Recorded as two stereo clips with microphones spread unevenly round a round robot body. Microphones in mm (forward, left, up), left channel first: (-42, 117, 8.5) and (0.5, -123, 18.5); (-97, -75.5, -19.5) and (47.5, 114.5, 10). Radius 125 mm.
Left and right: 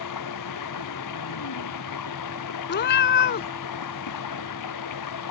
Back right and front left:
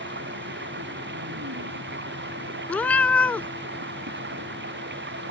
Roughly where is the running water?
Left.